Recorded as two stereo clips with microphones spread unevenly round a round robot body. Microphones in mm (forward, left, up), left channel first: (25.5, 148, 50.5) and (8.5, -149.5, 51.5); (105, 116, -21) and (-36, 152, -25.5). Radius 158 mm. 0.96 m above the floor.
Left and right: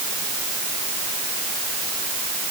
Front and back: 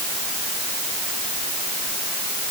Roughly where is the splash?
I don't hear a splash.